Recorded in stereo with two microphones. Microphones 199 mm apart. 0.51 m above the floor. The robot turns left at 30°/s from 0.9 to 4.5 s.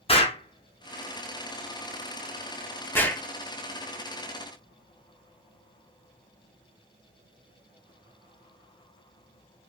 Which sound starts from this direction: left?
An explosion, at 0.1 s.